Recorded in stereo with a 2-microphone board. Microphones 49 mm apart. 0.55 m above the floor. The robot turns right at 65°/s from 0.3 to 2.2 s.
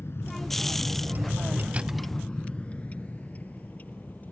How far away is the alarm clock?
No alarm clock in this recording.